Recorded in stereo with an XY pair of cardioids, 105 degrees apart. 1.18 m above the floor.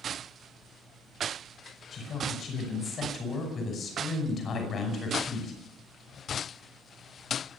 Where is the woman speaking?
50° left, 5.5 m.